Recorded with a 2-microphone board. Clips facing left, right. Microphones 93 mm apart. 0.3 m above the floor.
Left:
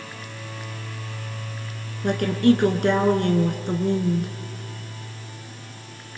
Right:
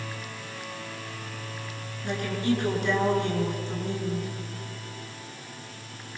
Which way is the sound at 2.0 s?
60° left (ahead or behind).